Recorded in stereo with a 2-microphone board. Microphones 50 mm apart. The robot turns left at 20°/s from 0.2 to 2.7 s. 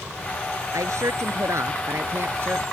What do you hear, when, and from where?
0.7 s a woman speaking: 100° right; by 2.6 s 135° right